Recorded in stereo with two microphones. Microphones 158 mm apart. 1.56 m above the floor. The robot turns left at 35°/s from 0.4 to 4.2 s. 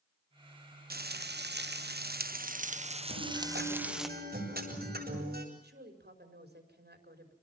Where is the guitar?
75° right, 8.5 m; by 5.5 s 115° right, 8.5 m.